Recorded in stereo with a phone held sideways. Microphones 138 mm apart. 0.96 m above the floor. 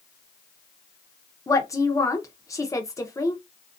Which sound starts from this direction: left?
A woman speaking, at 1.5 s.